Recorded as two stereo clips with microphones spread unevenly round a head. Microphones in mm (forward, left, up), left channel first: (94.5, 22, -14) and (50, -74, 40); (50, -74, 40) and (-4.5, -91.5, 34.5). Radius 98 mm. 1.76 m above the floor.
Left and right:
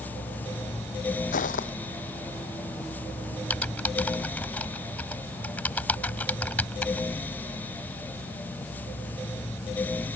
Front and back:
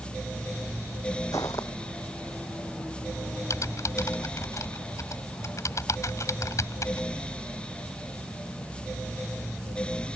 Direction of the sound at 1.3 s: 75° left.